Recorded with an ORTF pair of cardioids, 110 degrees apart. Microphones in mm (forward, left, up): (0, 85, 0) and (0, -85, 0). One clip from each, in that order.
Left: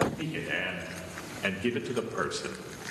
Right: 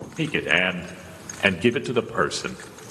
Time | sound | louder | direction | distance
0.2 | a man speaking | right 11 dB | 65° right | 3 m